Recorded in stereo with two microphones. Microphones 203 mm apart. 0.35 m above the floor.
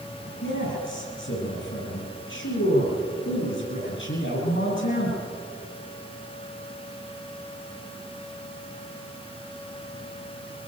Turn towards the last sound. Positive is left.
turn(degrees=85)